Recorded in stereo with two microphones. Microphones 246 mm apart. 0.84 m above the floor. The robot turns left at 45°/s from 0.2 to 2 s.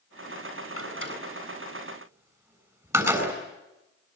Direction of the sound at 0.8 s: 70° right (ahead or behind).